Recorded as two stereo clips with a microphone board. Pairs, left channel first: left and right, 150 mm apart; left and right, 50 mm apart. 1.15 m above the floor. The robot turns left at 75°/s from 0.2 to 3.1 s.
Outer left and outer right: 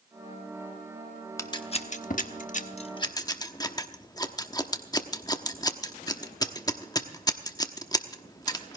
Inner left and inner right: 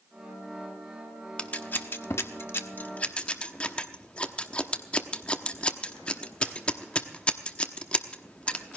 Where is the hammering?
I don't hear hammering.